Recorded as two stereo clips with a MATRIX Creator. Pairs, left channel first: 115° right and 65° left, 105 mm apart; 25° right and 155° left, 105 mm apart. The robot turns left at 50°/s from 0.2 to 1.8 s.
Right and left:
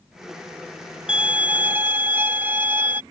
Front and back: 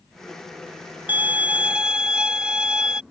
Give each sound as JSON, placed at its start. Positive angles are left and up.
{"t": 1.1, "sound": "a violin", "azimuth_deg": 130}